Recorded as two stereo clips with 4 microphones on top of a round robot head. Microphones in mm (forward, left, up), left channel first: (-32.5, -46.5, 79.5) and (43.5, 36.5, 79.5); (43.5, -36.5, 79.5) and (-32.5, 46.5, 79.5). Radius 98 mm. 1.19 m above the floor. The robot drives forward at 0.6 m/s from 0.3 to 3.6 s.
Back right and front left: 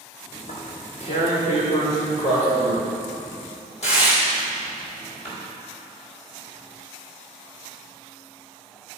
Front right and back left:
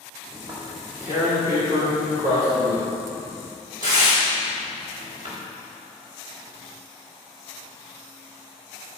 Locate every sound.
0.3 s tearing paper: 155° right, 1.7 m; by 5.3 s 170° right, 3.5 m